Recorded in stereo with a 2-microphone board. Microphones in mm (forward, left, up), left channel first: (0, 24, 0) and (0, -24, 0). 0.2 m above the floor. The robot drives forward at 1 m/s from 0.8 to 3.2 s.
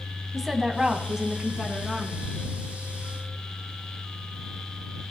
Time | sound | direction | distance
0.3 | a woman speaking | 10° right (ahead or behind) | 1.3 m